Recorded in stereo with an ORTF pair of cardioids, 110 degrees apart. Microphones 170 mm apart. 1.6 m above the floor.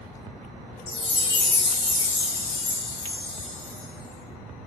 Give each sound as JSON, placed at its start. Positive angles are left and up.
{"t": 0.9, "sound": "a chime", "azimuth_deg": 35, "distance_m": 0.8}